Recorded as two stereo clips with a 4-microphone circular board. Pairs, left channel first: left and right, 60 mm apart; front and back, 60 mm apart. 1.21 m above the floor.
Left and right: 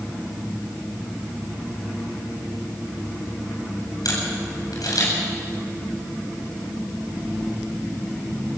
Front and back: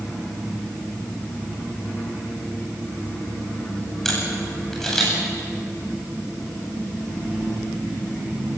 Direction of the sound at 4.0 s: 85° left.